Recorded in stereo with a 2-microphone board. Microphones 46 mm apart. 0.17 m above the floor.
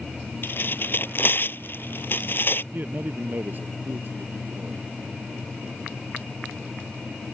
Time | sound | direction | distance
0.4 | tearing paper | 50° left (ahead or behind) | ?
2.7 | a man speaking | 45° right (ahead or behind) | ?